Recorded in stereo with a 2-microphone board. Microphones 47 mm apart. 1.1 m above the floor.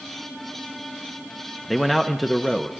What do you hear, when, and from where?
1.7 s a man speaking: centre (ahead or behind), 0.7 m